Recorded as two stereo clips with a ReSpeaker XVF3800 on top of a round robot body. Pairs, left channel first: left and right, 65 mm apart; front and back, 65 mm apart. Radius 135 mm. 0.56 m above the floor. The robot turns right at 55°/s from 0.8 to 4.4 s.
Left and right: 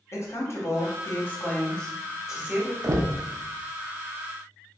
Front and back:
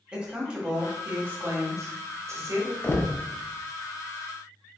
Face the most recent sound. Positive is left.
turn(degrees=25)